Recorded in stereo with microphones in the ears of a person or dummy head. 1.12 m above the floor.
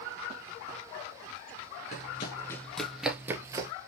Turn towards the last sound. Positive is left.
turn(degrees=-20)  # may be behind; listen again after turning